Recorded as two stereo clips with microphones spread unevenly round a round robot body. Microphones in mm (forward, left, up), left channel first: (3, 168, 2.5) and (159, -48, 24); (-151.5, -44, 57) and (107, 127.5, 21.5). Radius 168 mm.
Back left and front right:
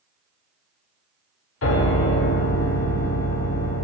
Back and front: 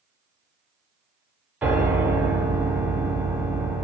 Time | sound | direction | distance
1.6 | a piano | 115° left | 0.9 m